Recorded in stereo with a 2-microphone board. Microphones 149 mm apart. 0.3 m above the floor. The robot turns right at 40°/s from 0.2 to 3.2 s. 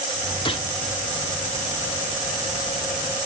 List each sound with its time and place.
0.5 s a gunshot: 35° left (ahead or behind), 1.0 m; by 0.7 s 45° left (ahead or behind), 1.0 m